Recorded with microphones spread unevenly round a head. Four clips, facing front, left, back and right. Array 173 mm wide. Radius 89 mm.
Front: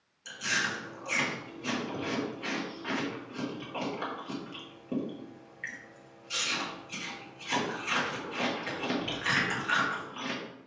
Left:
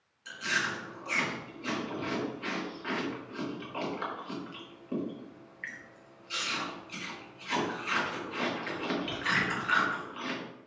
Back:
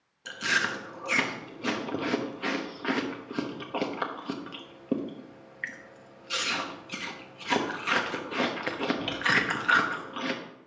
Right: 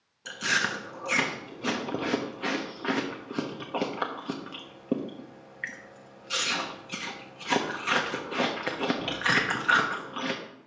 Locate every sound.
0.2 s chewing: 125° right, 1.2 m